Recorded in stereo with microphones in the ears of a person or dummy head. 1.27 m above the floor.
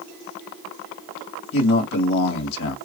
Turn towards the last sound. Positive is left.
turn(degrees=65)  # may be behind; listen again after turning